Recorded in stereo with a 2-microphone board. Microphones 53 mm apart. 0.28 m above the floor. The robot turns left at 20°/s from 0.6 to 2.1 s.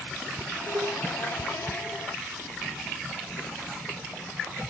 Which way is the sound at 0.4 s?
80° right.